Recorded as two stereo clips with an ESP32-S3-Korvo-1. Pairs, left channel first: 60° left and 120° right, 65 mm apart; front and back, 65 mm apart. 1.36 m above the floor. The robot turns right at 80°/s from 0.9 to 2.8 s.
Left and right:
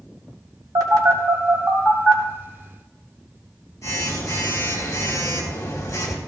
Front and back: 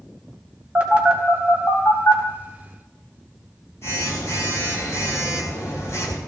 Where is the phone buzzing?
115° right, 4 m; by 6.2 s 35° left, 4 m.